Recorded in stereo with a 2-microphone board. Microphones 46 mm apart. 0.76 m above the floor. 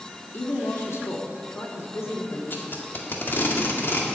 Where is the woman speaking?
65° left (ahead or behind), 1.7 m; by 2.4 s 75° left (ahead or behind), 3 m.